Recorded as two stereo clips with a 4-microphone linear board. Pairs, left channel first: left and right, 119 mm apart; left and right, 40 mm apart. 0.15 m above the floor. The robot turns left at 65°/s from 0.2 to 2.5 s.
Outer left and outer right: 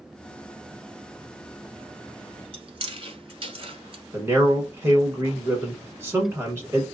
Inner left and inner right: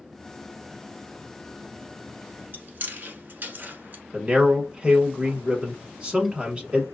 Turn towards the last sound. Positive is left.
turn(degrees=-20)  # may be behind; listen again after turning